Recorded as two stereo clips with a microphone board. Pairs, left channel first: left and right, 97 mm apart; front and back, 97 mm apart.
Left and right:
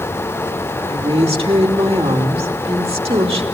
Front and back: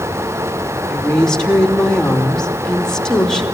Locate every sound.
0.9 s a woman speaking: 85° right, 3 m